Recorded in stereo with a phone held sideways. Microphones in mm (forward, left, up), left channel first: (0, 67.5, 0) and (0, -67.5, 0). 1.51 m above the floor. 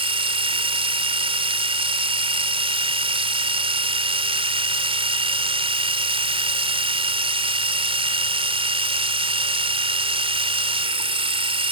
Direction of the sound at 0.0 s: 45° right (ahead or behind).